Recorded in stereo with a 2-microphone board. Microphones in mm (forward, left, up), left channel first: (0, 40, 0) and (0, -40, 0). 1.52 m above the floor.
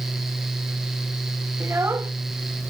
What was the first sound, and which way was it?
A child speaking, 30° right (ahead or behind).